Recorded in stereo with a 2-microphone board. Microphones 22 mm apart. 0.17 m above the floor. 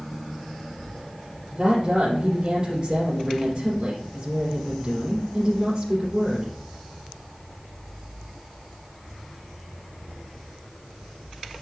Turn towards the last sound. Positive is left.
turn(degrees=-30)  # may be behind; listen again after turning